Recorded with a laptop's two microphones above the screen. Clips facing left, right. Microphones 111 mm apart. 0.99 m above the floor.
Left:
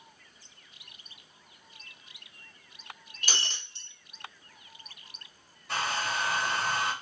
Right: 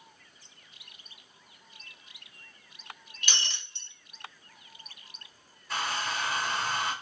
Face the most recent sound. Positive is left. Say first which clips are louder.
# left 1 dB
turn(degrees=80)